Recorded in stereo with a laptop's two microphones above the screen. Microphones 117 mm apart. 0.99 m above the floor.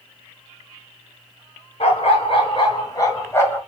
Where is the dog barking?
60° left (ahead or behind), 1.8 m; by 3.6 s 15° left (ahead or behind), 1.7 m.